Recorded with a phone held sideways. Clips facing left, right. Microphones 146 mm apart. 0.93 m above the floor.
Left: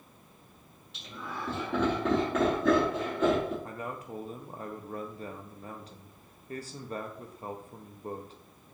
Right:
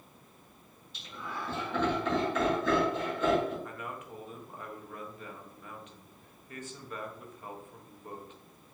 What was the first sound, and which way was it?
Laughter, 80° left.